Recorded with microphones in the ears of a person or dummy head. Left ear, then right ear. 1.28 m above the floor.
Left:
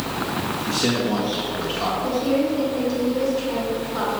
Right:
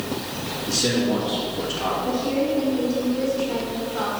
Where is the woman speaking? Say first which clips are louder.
Left 2 dB; 85° left, 2.5 m.